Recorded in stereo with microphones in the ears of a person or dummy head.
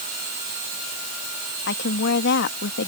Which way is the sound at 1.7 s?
55° left (ahead or behind).